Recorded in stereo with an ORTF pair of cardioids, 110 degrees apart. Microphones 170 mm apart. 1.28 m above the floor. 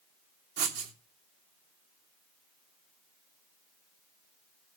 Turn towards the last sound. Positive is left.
turn(degrees=-70)